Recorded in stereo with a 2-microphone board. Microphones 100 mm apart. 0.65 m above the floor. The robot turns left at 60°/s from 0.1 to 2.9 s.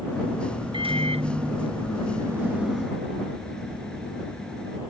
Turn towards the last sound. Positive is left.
turn(degrees=170)